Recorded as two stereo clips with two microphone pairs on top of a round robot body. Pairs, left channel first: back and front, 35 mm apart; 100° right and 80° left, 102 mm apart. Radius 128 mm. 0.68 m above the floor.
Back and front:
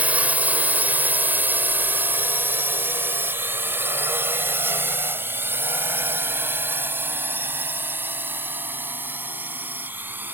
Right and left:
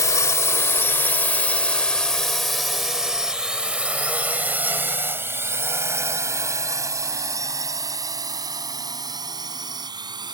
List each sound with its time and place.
0.0 s a drone: 45° right; by 10.4 s 30° left